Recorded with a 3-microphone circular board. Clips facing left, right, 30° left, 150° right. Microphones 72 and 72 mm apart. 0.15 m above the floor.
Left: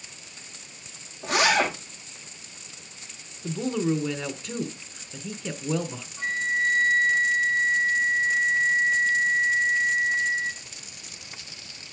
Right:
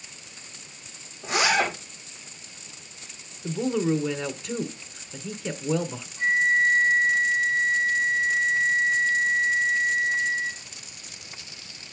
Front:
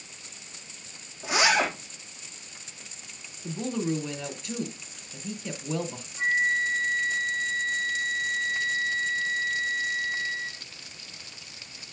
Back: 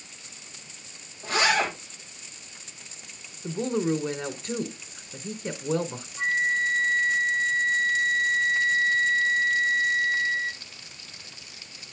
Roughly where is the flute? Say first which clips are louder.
Right 5 dB, even; behind left.